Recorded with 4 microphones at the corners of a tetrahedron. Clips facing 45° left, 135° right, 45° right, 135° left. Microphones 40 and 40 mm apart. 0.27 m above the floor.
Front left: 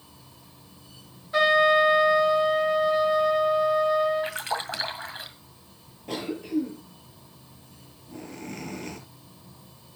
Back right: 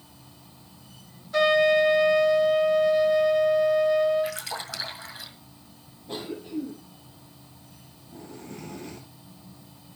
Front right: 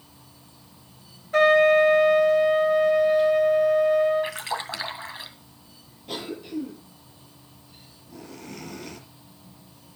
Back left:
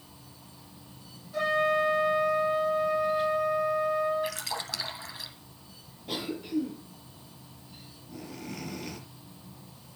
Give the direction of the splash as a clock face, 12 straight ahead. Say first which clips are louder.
Front left 2 dB, front right 4 dB; 12 o'clock.